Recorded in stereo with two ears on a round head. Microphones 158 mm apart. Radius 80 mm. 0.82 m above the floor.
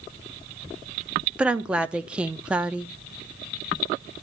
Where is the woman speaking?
5° right (ahead or behind), 1.1 m.